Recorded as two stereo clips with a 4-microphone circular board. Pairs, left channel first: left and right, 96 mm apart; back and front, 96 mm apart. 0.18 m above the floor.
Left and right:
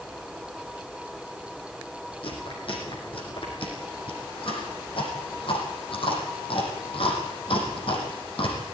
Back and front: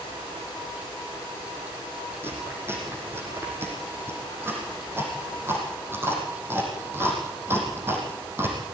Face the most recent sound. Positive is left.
turn(degrees=65)